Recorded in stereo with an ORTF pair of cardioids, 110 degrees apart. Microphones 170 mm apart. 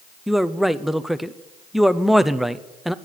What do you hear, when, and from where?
0.3 s a man speaking: straight ahead, 0.7 m